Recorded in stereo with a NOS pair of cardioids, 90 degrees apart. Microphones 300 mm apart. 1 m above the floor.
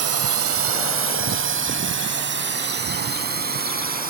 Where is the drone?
55° right; by 4.1 s 30° right.